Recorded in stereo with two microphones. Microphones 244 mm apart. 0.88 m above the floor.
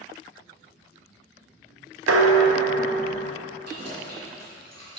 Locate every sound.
2.1 s dishes clattering: 75° right (ahead or behind), 0.5 m
3.6 s keys jangling: 85° right, 1.7 m